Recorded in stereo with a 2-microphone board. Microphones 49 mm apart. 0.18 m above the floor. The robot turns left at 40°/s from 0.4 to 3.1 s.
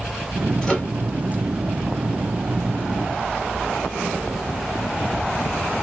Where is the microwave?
10° left (ahead or behind), 1.6 m; by 0.9 s 15° left (ahead or behind), 1.6 m.